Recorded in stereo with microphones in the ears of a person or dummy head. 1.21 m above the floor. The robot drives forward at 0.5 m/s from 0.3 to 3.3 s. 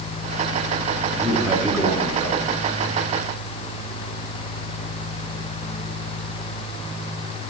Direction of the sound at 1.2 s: 5° right (ahead or behind).